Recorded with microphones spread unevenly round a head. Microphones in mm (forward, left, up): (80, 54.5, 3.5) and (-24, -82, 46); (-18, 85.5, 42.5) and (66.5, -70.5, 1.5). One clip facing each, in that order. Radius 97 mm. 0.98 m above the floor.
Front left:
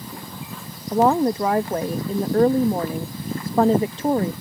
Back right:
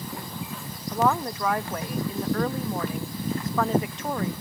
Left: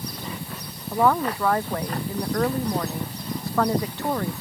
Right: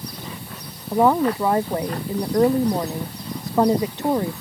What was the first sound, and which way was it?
A woman speaking, 5° left.